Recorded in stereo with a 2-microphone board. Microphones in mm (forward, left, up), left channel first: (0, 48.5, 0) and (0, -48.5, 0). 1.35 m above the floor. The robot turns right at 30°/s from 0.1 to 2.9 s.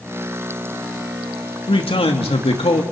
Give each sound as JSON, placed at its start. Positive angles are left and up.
{"t": 1.7, "sound": "a man speaking", "azimuth_deg": 65, "distance_m": 2.5}